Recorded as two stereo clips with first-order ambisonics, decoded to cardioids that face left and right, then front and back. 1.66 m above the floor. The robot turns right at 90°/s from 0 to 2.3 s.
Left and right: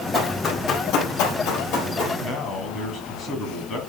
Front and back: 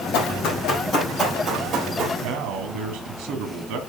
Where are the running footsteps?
10° right, 5 m; by 2.1 s 155° left, 3.5 m.